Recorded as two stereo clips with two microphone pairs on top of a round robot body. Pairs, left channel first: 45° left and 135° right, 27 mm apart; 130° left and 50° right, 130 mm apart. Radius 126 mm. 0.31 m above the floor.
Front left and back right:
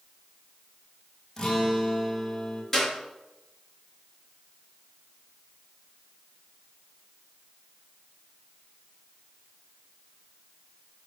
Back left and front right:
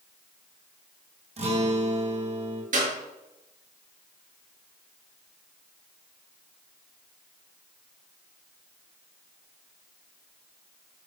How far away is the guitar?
About 3 m.